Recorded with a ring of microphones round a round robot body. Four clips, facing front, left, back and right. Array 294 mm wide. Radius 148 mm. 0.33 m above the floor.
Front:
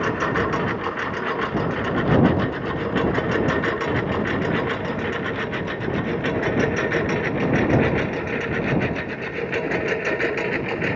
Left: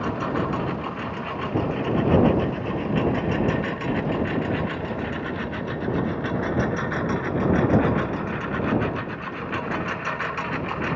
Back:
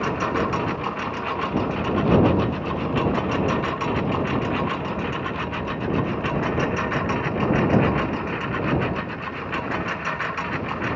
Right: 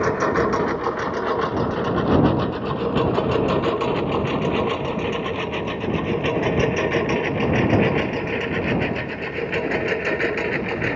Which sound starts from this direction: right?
A lawn mower, at 0.0 s.